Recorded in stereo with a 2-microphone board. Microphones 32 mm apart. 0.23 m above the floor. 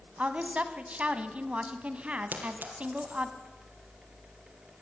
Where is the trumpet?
No trumpet in this recording.